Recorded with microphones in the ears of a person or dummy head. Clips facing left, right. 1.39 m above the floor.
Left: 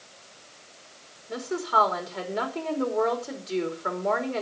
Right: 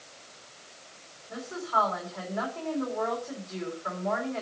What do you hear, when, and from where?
1.3 s a woman speaking: 55° left (ahead or behind), 2.5 m